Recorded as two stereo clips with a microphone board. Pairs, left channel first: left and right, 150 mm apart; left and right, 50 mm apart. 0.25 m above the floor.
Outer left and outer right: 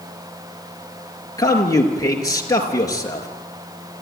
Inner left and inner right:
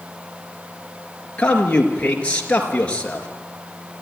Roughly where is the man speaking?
Left.